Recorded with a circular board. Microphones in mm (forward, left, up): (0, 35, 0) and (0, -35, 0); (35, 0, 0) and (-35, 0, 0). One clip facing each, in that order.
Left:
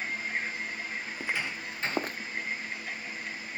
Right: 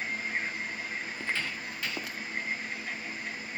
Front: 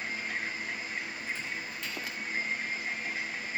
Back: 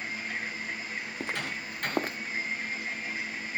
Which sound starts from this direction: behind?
Footsteps, at 1.2 s.